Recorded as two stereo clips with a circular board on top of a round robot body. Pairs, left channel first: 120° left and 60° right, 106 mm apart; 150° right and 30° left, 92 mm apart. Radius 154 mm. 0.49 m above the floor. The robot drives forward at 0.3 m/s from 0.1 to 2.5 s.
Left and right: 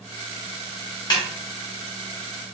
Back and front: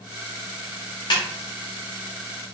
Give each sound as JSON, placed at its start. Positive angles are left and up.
{"t": 1.1, "sound": "a snare drum", "azimuth_deg": 170, "distance_m": 0.7}